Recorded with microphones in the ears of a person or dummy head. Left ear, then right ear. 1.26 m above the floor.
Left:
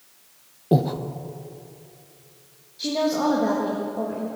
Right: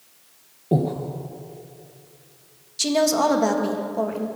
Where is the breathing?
25° left (ahead or behind), 0.8 m.